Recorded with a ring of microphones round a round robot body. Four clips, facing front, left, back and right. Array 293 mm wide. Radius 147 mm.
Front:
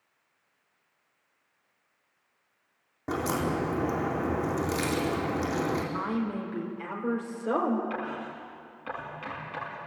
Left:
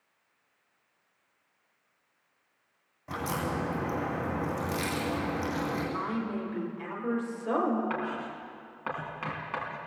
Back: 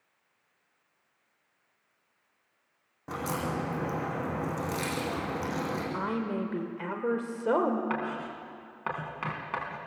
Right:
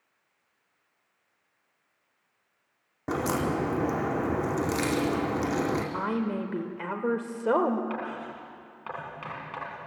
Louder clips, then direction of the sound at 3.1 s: Right 5 dB, front 4 dB; 65° right.